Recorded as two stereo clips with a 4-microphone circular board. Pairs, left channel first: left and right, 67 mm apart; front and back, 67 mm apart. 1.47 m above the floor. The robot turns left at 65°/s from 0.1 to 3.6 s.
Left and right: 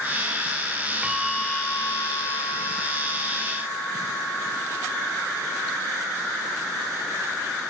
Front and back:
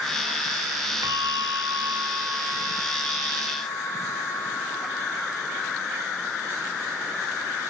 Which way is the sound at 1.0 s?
165° right.